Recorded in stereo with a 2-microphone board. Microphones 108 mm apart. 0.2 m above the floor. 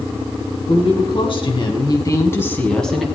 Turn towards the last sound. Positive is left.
turn(degrees=0)  # may be behind; listen again after turning